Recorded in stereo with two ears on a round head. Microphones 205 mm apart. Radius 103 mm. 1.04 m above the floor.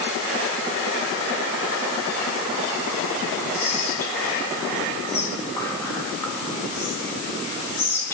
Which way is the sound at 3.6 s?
10° left (ahead or behind).